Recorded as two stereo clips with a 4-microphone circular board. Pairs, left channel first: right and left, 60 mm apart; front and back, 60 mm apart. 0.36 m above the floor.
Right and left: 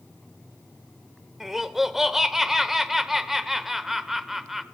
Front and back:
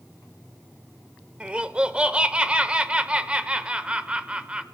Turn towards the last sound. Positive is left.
turn(degrees=165)